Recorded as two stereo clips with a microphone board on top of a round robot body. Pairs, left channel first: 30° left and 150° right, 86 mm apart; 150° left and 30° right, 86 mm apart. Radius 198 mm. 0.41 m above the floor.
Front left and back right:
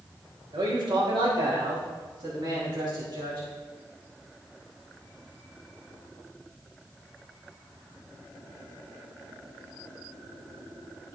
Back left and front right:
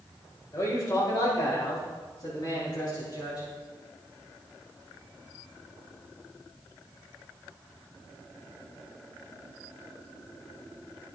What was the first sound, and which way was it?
A man speaking, 165° right.